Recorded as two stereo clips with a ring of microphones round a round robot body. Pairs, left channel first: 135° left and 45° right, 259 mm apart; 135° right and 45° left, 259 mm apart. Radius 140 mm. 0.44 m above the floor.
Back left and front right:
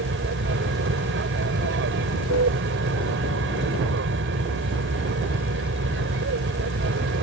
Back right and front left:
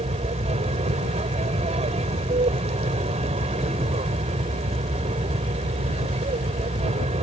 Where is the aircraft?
15° right.